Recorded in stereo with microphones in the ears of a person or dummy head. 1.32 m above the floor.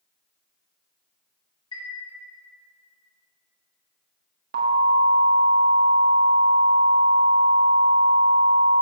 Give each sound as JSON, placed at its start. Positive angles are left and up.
{"t": 1.7, "sound": "a chime", "side_deg": 25, "distance_m": 1.9}
{"t": 4.5, "sound": "an alarm", "side_deg": -55, "distance_m": 1.5}